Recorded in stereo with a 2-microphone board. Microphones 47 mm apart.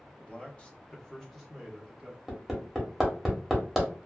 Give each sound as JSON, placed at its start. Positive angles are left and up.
{"t": 0.2, "sound": "a man speaking", "side_deg": 25, "distance_m": 0.7}
{"t": 2.3, "sound": "hammering", "side_deg": -5, "distance_m": 1.0}